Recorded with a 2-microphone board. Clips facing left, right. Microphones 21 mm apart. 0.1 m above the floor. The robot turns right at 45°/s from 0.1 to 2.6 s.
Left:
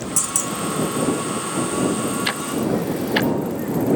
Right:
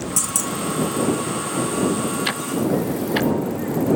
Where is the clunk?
5° left (ahead or behind); by 0.5 s 20° left (ahead or behind).